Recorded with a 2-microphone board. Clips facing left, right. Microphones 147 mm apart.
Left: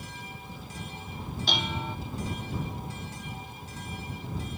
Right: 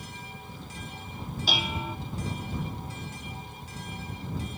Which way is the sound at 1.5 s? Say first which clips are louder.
Even; 5° right (ahead or behind).